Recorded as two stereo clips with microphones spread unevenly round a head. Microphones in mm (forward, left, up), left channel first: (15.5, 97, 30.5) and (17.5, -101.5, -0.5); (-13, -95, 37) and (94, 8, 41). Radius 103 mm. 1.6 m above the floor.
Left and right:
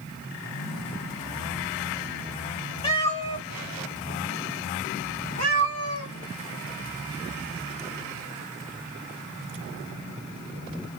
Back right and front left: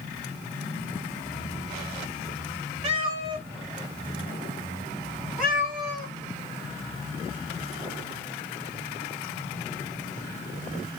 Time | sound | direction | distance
2.8 | a cat meowing | 65° left | 1.6 m